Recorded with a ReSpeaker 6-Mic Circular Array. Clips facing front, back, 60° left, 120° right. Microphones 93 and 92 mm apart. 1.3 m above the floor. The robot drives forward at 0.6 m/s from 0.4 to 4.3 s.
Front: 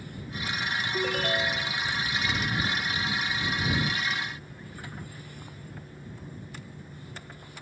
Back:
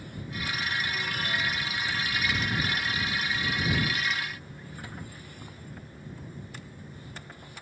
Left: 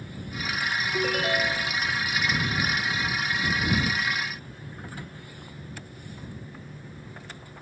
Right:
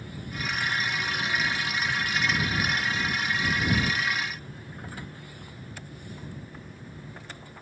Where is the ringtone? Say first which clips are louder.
Front 4 dB, left 4 dB; 40° left.